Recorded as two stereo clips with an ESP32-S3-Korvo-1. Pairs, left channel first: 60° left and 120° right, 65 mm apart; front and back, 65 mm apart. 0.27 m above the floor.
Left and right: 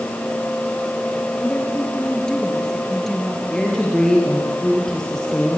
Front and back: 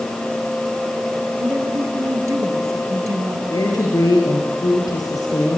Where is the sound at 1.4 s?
130° left, 5.5 m; by 3.4 s 150° left, 5.5 m.